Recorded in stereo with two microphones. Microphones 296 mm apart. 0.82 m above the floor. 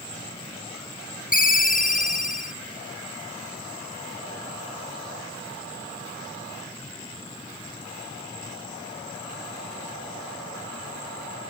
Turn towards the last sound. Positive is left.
turn(degrees=30)  # may be behind; listen again after turning